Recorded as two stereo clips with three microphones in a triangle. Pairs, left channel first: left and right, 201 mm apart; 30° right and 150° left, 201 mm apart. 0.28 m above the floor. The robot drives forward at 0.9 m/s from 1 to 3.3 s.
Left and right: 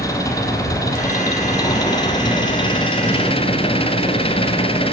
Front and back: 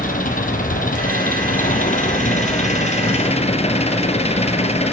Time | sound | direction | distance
0.0 | an engine running | 15° left | 5 m